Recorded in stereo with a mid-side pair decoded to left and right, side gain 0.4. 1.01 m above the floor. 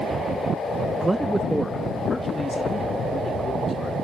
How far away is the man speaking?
About 0.6 m.